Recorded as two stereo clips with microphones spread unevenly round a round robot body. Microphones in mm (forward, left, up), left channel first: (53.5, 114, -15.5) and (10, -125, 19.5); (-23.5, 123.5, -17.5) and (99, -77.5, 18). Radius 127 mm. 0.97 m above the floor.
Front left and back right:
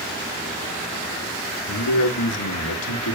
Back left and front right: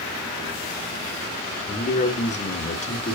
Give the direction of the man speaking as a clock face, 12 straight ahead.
10 o'clock.